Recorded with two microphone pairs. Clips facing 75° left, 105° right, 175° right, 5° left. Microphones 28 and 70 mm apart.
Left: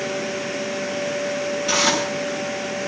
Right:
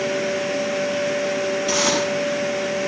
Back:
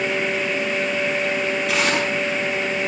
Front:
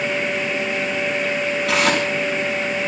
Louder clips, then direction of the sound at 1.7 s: Left 2 dB, front 4 dB; 5° right.